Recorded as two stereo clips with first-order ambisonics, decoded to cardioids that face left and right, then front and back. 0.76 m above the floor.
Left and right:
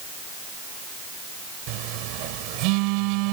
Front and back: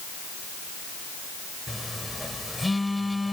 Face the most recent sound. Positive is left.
turn(degrees=-85)